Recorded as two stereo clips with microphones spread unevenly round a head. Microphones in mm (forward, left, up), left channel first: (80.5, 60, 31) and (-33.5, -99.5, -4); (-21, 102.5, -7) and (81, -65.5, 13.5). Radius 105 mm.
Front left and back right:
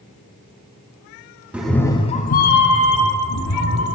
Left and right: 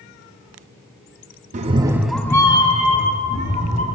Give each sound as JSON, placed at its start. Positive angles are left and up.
{"t": 1.5, "sound": "a cat meowing", "azimuth_deg": -35, "distance_m": 0.8}